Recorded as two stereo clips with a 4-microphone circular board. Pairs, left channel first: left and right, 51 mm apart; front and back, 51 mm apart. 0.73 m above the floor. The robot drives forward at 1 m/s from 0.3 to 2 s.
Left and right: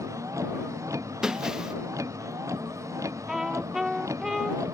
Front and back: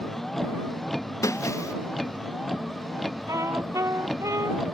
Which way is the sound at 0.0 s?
85° right.